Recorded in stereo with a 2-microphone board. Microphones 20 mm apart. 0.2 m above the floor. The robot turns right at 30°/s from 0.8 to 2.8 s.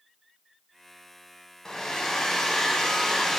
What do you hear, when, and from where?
1.6 s a hair dryer: 30° left (ahead or behind), 0.5 m